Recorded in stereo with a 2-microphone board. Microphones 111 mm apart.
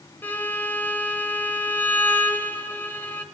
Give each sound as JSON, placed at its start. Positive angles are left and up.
{"t": 0.2, "sound": "a violin", "side_deg": 20, "distance_m": 1.1}